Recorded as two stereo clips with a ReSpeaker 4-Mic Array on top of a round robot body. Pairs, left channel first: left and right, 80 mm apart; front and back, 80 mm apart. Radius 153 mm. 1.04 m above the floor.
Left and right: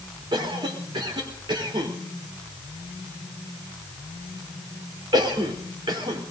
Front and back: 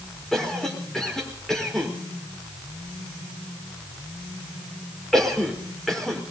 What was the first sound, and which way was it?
A cough, 85° right.